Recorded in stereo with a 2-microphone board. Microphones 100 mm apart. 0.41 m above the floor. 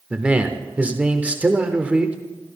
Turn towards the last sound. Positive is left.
turn(degrees=-15)  # may be behind; listen again after turning